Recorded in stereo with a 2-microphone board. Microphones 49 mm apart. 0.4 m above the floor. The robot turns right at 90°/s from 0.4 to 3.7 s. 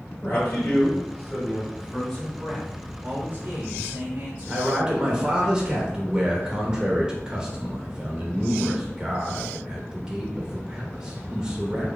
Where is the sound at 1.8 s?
130° left, 1.0 m; by 5.5 s 55° right, 1.0 m.